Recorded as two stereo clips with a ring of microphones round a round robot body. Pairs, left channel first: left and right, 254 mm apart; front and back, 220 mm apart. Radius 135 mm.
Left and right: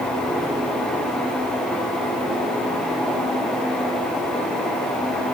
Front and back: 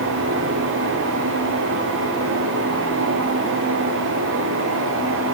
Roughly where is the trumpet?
I don't hear a trumpet.